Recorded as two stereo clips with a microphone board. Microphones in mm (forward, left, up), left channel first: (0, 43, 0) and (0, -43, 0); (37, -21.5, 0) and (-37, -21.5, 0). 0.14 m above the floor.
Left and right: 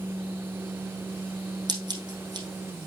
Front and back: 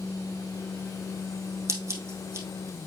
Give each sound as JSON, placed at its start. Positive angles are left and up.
{"t": 1.7, "sound": "scissors", "azimuth_deg": -125, "distance_m": 3.0}